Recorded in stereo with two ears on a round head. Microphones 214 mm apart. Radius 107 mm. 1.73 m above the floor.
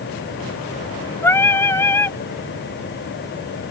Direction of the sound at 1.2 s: 10° left (ahead or behind).